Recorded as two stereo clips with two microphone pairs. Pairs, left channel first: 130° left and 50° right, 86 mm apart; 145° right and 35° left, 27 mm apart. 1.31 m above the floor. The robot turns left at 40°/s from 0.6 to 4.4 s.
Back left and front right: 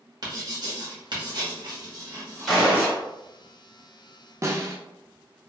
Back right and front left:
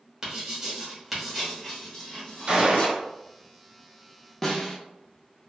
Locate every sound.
0.2 s writing: 35° right, 1.0 m; by 3.0 s 125° right, 1.0 m
2.5 s a gunshot: 40° left, 1.4 m; by 3.0 s 20° left, 1.4 m
4.4 s a snare drum: 75° right, 0.5 m